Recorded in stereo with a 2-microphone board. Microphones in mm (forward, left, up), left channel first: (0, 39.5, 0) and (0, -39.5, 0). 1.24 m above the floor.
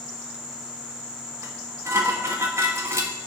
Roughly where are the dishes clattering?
Right.